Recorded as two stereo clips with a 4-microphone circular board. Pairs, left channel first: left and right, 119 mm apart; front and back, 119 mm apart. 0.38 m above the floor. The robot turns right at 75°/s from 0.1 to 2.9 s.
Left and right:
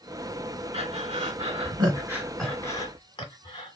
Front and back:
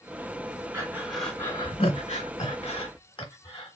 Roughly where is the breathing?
Behind right.